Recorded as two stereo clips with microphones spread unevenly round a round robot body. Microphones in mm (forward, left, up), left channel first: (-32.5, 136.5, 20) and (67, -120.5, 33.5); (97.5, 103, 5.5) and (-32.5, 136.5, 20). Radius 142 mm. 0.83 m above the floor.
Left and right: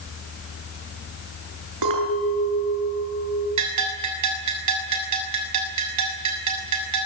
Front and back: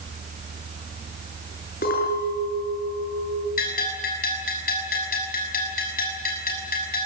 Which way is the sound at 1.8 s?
55° right.